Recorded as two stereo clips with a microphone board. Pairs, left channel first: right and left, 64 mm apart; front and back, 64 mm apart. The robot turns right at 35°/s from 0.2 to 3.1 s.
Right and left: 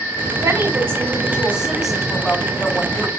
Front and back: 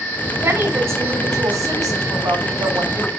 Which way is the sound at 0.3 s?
125° left.